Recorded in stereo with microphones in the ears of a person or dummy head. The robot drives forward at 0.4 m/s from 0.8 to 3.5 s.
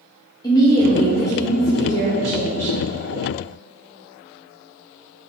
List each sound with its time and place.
0.4 s a woman speaking: 15° left (ahead or behind), 0.7 m; by 2.7 s 10° left (ahead or behind), 1.3 m